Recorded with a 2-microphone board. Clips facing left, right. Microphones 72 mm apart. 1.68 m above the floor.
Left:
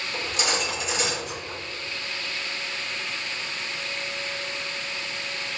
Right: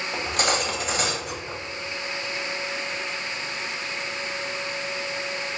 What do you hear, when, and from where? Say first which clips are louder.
0.1 s cutlery clinking: right 3 dB; 45° right (ahead or behind), 1.1 m